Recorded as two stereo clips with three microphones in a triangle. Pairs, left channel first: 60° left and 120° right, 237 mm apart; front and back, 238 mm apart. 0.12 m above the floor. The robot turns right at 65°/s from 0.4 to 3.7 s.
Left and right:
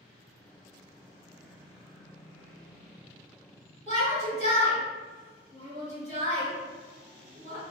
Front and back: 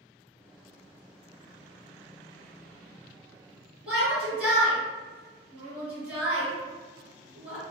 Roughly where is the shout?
Left.